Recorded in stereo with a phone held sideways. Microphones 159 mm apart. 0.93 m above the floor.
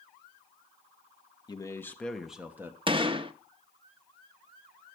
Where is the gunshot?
35° right (ahead or behind), 0.7 m.